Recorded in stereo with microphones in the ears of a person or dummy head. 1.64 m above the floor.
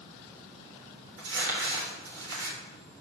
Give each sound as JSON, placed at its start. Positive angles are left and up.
{"t": 1.2, "sound": "crumpling", "side_deg": -70, "distance_m": 3.0}